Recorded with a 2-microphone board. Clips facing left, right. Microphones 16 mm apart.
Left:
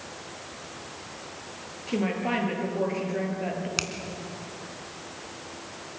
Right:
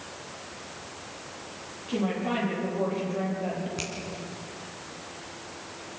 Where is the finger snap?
50° left (ahead or behind), 3 m.